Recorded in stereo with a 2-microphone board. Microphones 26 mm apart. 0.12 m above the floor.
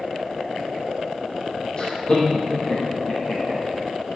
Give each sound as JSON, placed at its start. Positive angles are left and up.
{"t": 1.8, "sound": "laughter", "side_deg": 30, "distance_m": 6.5}